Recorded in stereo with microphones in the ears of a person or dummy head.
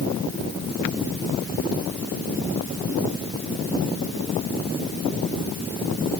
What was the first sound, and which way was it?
Only background noise.